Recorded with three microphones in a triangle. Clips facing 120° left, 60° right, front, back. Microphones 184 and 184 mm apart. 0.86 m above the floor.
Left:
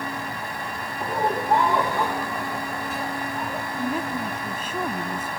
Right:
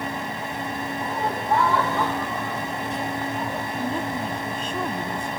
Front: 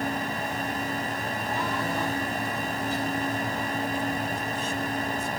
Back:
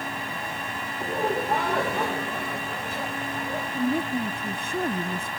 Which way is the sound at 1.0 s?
Straight behind.